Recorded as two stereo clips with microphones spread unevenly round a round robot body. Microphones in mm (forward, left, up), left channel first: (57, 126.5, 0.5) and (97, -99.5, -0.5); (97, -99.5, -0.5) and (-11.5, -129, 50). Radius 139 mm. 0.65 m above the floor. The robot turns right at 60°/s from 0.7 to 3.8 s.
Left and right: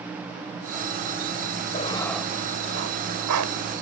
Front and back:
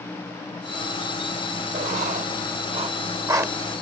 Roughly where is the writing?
Behind.